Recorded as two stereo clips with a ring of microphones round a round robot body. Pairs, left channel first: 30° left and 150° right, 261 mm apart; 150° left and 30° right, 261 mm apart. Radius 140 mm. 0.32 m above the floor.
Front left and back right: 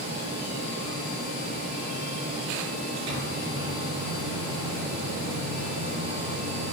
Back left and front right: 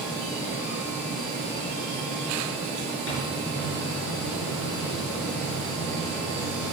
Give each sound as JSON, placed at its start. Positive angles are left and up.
{"t": 3.1, "sound": "a microwave", "azimuth_deg": -170, "distance_m": 5.5}